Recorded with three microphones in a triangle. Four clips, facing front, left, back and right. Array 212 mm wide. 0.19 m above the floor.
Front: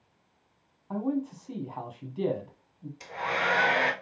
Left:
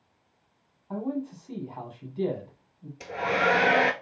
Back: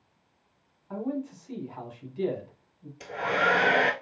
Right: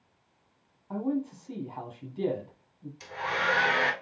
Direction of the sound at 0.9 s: 5° left.